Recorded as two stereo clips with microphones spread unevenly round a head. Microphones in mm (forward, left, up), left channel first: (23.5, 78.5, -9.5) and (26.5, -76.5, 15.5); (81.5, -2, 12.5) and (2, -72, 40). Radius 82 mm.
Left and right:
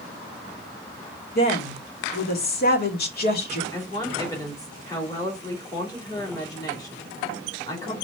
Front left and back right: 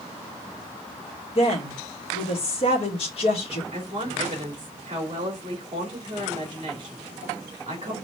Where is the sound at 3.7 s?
160° left, 3 m.